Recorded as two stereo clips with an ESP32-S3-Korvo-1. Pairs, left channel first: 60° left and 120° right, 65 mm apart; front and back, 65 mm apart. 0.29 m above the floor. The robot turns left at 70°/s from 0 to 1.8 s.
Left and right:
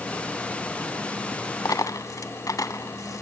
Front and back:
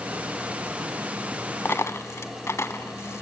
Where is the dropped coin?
50° left, 1.1 m; by 3.2 s 40° left, 1.1 m.